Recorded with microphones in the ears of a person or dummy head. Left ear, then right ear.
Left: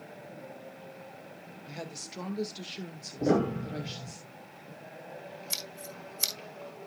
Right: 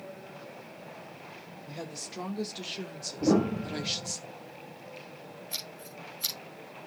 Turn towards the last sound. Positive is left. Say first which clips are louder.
# left 2 dB
turn(degrees=55)  # may be behind; listen again after turning